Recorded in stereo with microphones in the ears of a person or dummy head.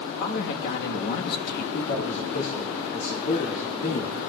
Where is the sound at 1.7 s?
65° left (ahead or behind), 2.5 m.